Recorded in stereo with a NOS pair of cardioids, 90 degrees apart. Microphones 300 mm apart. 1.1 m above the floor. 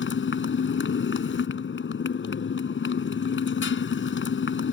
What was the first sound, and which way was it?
A motorcycle, 40° left.